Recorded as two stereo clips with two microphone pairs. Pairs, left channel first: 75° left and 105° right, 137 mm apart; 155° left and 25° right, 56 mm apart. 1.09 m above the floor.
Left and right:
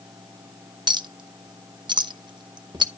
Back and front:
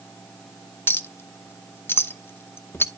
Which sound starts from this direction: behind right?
A clink, at 0.9 s.